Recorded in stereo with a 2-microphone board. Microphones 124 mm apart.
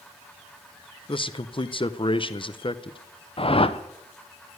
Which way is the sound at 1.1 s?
45° left (ahead or behind).